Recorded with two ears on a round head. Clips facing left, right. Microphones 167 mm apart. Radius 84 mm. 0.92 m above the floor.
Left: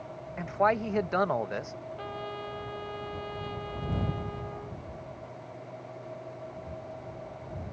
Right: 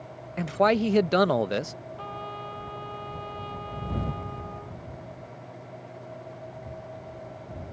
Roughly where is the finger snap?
No finger snap in this recording.